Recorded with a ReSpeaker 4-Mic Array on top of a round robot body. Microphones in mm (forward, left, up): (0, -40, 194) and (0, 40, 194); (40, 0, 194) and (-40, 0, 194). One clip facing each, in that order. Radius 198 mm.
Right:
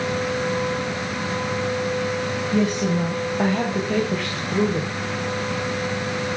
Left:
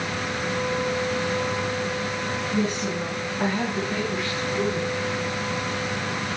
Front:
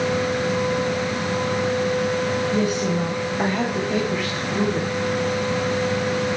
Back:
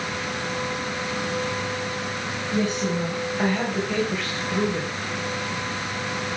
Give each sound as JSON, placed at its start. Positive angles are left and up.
{"t": 2.5, "sound": "a woman speaking", "azimuth_deg": -75, "distance_m": 5.5}